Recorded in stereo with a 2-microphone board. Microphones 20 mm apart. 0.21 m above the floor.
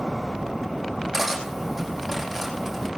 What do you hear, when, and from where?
1.1 s cutlery clinking: centre (ahead or behind), 5.5 m